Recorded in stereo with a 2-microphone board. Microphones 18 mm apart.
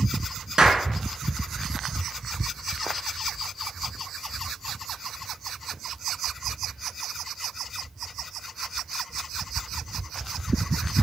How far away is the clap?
About 1.9 m.